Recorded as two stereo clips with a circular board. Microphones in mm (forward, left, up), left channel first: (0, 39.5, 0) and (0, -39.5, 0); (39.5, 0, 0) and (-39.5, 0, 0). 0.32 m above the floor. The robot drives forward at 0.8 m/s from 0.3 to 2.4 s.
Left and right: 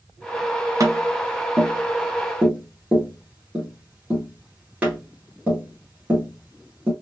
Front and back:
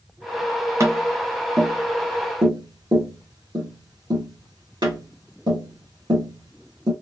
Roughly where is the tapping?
Behind right.